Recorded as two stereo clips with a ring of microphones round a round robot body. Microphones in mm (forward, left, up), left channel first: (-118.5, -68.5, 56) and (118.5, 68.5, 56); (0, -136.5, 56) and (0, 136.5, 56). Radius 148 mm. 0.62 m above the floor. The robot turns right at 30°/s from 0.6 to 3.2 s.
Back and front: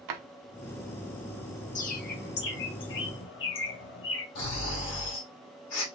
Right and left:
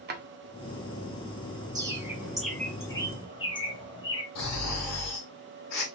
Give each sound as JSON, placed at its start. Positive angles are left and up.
{"t": 0.1, "sound": "a drawer", "azimuth_deg": 30, "distance_m": 0.6}
{"t": 1.8, "sound": "a bird", "azimuth_deg": 160, "distance_m": 0.9}
{"t": 4.3, "sound": "snoring", "azimuth_deg": -115, "distance_m": 1.8}